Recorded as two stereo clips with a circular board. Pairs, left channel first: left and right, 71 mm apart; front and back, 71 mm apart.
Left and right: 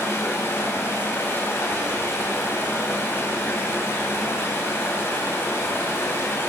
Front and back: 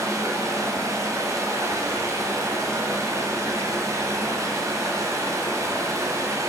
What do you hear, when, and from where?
0.0 s running water: 140° left, 2.5 m